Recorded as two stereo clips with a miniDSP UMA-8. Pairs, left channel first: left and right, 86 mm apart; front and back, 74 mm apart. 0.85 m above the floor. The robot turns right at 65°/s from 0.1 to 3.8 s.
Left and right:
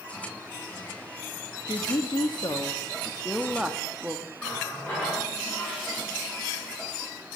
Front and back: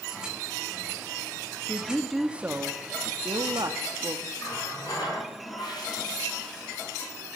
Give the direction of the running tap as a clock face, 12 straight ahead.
11 o'clock.